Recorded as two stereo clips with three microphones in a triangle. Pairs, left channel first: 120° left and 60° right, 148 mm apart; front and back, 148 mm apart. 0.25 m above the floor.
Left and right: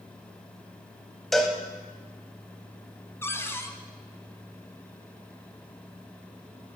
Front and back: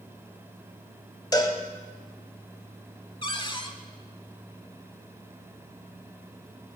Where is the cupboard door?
50° left, 0.8 m.